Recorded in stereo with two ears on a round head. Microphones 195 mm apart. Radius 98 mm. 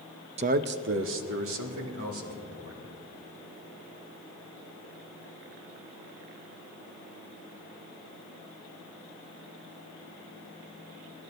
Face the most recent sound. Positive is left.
turn(degrees=-75)  # may be behind; listen again after turning